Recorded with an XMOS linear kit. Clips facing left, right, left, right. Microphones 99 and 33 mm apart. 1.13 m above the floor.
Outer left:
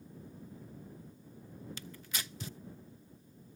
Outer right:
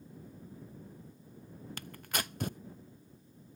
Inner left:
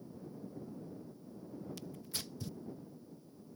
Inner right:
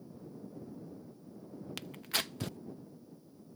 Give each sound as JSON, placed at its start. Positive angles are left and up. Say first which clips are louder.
{"t": 1.8, "sound": "tearing paper", "louder": "outer right 11 dB, inner right 8 dB", "side_deg": -55}